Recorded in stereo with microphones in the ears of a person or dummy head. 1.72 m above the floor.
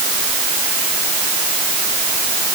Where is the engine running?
I don't hear an engine running.